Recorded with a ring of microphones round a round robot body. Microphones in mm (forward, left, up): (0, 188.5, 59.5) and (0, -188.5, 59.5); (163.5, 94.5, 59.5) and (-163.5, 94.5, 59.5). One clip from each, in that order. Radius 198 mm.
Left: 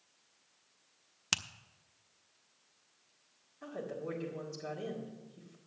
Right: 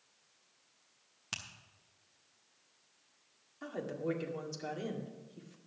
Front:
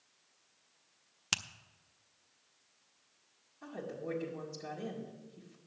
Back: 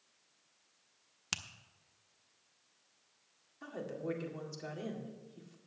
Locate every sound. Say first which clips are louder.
1.3 s a finger snap: left 8 dB, front 5 dB; 70° left, 0.6 m
3.6 s a woman speaking: right 3 dB, back 1 dB; 140° right, 2 m